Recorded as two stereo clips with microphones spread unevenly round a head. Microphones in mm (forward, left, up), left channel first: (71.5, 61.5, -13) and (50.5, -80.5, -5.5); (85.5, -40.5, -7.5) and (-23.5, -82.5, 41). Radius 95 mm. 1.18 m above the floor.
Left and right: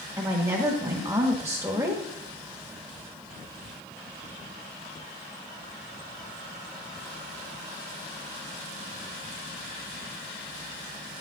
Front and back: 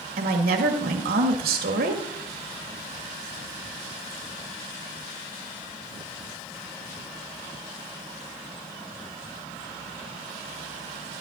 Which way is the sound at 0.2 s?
175° right.